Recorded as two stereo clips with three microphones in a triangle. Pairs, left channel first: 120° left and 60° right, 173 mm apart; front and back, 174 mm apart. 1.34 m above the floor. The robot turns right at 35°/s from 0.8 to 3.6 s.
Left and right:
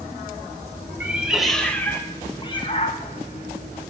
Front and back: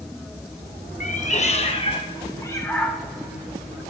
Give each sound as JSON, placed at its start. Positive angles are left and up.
{"t": 1.0, "sound": "a cat meowing", "azimuth_deg": 15, "distance_m": 0.7}